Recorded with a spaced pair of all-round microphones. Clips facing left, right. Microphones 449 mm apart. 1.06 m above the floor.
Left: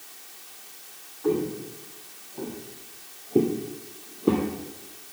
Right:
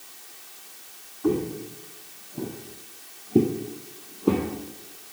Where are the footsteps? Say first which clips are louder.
Right 1 dB; 50° right (ahead or behind), 2.5 m; by 4.5 s centre (ahead or behind), 1.6 m.